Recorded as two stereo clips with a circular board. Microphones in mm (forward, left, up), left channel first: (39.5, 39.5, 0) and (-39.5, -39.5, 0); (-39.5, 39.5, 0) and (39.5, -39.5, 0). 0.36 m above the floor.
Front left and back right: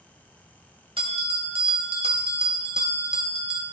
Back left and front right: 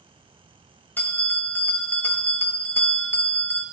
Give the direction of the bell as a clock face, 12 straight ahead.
5 o'clock.